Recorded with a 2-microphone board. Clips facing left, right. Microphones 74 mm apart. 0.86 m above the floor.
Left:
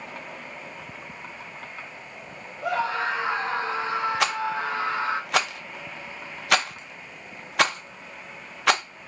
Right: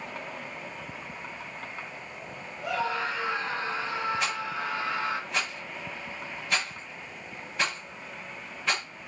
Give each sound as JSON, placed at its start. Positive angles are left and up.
{"t": 2.6, "sound": "a scream", "side_deg": 75, "distance_m": 2.5}
{"t": 4.2, "sound": "a rattle", "side_deg": 85, "distance_m": 0.6}